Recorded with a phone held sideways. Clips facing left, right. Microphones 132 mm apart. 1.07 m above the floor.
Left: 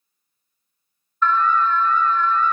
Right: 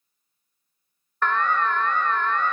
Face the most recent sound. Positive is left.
turn(degrees=-65)  # may be behind; listen again after turning